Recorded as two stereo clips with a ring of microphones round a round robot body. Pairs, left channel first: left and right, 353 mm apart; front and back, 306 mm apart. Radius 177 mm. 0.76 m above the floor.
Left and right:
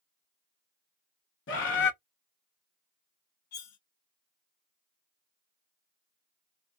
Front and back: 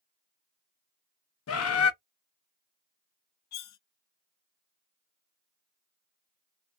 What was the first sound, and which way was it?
A bird, 35° left.